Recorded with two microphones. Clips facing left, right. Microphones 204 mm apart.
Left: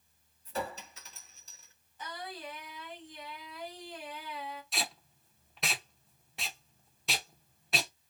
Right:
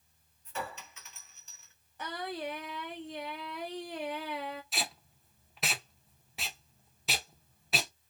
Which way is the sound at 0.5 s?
35° left (ahead or behind).